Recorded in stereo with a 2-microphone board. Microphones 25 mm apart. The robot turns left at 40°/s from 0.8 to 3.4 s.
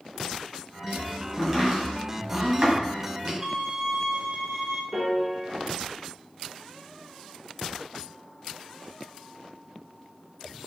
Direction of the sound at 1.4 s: 10° right (ahead or behind).